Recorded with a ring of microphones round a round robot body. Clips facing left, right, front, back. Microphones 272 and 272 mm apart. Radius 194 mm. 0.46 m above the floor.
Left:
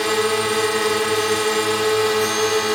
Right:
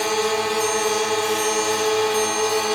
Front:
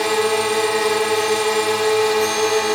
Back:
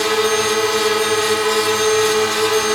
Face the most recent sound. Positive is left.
turn(degrees=135)